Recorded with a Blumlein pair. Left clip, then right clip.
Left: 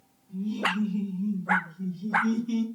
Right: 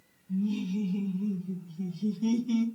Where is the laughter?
70° right, 1.6 m; by 2.7 s 5° left, 0.7 m.